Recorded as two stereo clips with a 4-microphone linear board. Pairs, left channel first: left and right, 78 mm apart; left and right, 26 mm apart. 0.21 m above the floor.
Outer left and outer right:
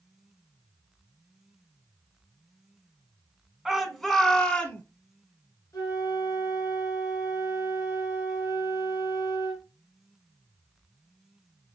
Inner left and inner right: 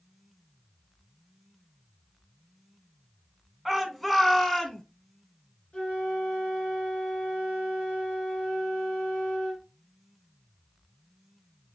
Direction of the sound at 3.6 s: 5° right (ahead or behind).